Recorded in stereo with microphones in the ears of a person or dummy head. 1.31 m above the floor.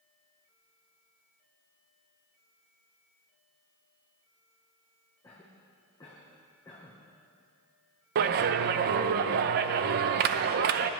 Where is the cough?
15° left (ahead or behind), 1.2 m.